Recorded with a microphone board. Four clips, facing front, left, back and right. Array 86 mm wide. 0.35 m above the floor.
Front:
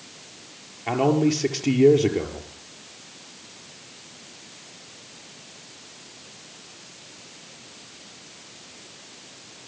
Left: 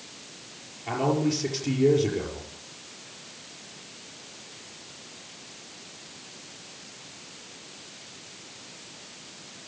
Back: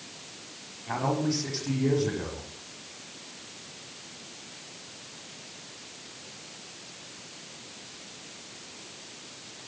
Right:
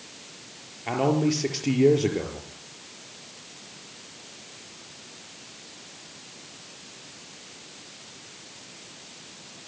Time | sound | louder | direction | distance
0.9 | a man speaking | right 2 dB, front 8 dB | 25° right | 6.5 m